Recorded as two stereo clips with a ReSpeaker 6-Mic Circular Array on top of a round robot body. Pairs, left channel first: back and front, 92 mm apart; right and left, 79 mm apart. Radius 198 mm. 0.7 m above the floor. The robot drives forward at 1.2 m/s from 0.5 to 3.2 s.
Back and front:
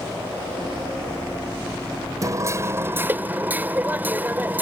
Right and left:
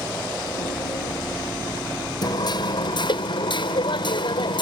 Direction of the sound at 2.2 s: 55° right.